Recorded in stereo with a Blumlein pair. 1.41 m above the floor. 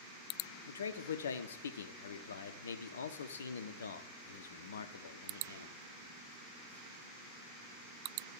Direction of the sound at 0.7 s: 65° left.